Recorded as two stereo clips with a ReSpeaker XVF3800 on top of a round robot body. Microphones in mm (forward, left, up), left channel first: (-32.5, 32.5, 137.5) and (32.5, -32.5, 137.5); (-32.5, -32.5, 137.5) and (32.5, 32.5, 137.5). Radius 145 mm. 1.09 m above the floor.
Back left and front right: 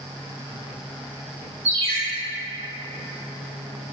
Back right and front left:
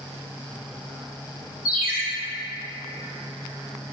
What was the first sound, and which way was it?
A ringtone, 35° right.